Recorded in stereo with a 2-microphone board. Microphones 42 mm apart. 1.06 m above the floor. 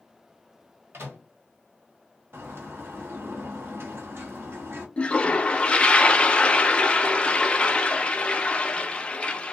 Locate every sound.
0.9 s a microwave: 75° right (ahead or behind), 1.7 m
2.3 s a bird: 60° right (ahead or behind), 1.1 m
5.0 s a toilet flushing: 20° left (ahead or behind), 0.5 m